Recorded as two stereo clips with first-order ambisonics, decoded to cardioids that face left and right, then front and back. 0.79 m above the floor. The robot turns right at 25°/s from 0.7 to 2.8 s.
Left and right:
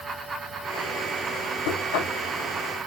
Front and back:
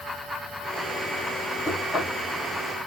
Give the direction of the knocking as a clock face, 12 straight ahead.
9 o'clock.